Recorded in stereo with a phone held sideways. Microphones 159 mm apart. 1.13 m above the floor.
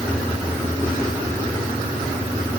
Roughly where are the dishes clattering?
I don't hear dishes clattering.